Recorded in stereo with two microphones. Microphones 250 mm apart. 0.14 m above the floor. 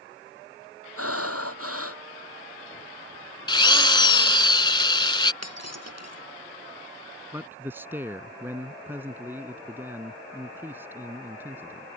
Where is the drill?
20° left (ahead or behind).